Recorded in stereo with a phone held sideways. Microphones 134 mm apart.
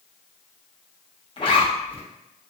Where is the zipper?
40° left (ahead or behind), 0.6 m.